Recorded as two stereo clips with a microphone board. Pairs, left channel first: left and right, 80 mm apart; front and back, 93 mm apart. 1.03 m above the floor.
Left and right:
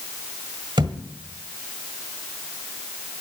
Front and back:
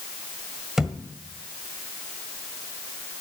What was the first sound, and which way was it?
A thud, 95° right.